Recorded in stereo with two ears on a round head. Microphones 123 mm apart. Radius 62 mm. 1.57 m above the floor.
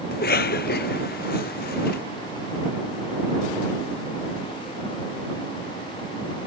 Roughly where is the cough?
Left.